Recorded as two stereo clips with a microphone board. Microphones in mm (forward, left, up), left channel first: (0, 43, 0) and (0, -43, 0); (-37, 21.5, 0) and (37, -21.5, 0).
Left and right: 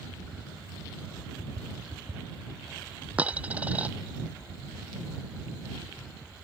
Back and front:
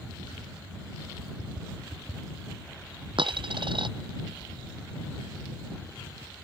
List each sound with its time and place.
3.2 s a dropped coin: 15° right